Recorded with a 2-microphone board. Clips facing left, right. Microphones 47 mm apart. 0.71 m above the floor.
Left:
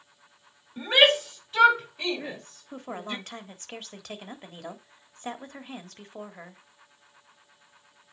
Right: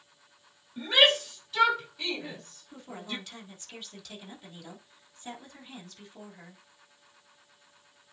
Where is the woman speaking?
50° left (ahead or behind), 1.7 m.